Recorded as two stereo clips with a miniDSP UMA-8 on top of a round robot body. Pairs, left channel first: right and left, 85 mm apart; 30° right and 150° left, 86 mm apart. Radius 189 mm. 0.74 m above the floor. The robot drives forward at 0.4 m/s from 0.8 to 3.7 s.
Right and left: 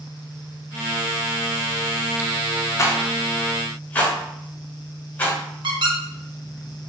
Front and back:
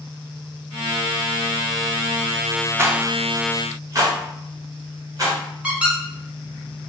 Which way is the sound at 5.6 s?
75° left.